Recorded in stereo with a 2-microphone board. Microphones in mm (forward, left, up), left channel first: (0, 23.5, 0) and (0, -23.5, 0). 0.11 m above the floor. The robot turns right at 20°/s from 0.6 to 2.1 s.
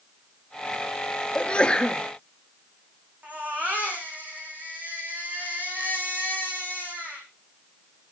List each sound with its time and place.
1.4 s a sneeze: 25° left (ahead or behind), 2 m; by 2.0 s 15° left (ahead or behind), 2 m
3.2 s a baby crying: 35° right (ahead or behind), 5.5 m